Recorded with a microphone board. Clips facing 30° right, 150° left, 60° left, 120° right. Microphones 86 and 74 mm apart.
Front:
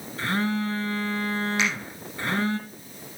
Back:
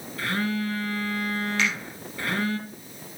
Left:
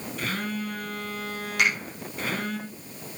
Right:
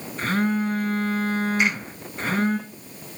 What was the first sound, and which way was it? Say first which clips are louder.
A phone buzzing: front 1 dB, right 9 dB; 80° right.